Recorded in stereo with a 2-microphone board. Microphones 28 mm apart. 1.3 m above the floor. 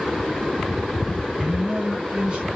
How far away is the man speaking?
About 4.5 m.